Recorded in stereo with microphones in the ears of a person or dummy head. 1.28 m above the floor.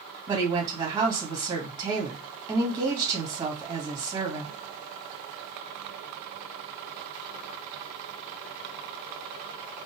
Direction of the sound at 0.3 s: 25° right (ahead or behind).